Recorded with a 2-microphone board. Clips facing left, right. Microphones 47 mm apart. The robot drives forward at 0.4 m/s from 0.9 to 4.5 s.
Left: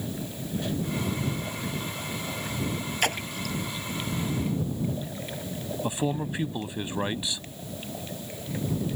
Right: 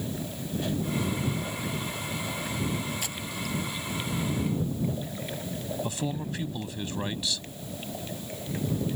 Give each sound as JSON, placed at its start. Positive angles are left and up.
{"t": 3.0, "sound": "a splash", "side_deg": 60}
{"t": 5.8, "sound": "a man speaking", "side_deg": 20}